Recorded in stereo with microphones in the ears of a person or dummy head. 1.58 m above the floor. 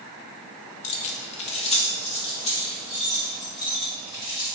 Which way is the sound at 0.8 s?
30° left (ahead or behind).